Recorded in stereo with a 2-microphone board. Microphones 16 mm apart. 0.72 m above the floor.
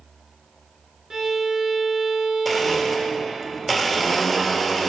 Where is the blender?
Centre (ahead or behind), 1.5 m.